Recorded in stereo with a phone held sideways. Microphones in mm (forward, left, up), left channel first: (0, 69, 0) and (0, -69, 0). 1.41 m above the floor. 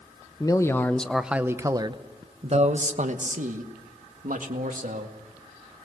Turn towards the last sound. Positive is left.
turn(degrees=-75)  # may be behind; listen again after turning